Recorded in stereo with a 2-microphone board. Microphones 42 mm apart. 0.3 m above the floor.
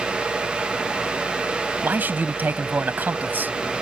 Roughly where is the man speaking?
Right.